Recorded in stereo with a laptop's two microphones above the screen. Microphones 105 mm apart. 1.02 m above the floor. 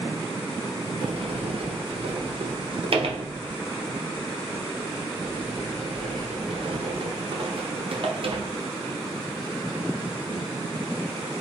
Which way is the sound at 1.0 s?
60° right (ahead or behind).